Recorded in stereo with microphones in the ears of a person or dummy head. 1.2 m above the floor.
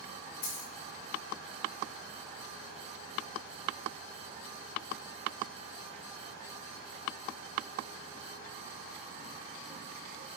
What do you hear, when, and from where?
0.4 s a dropped coin: 50° left (ahead or behind), 1.2 m